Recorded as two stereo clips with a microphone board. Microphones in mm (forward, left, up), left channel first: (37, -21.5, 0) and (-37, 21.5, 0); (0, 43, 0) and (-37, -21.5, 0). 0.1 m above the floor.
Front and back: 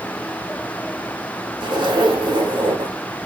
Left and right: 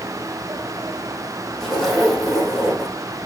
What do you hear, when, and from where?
1.6 s a zipper: 145° left, 4.5 m